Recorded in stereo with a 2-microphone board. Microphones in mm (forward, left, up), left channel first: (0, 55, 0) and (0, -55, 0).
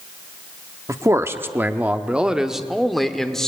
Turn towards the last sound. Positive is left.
turn(degrees=5)  # may be behind; listen again after turning